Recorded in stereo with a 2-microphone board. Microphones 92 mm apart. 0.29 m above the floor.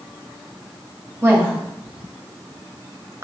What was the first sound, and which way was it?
A woman speaking, 25° right (ahead or behind).